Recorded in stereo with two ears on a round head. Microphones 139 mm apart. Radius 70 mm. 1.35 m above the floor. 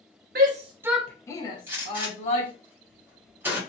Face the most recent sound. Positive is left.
turn(degrees=-15)  # may be behind; listen again after turning